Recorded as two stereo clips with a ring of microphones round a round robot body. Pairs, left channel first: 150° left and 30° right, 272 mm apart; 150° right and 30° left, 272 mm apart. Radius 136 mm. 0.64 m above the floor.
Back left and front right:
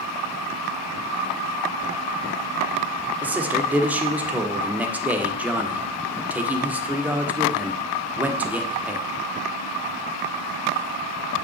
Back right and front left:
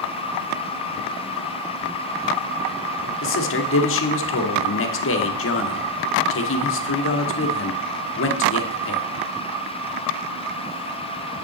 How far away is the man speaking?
About 1.3 m.